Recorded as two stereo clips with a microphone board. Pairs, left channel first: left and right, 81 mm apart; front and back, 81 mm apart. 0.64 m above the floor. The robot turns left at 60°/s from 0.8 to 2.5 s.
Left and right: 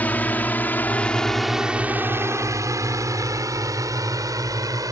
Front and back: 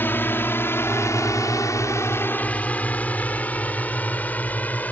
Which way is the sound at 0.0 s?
40° left.